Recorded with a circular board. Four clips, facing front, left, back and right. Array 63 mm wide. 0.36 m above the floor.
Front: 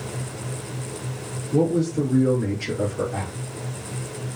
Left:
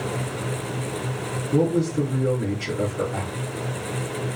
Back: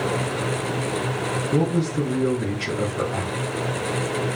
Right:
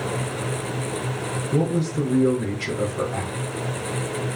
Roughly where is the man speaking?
Behind right.